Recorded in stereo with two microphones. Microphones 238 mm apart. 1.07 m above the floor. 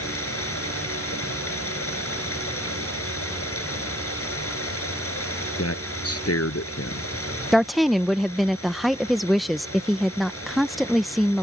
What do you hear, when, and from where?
0.0 s running water: 70° left (ahead or behind)
5.6 s a man speaking: 85° left
7.5 s a woman speaking: centre (ahead or behind)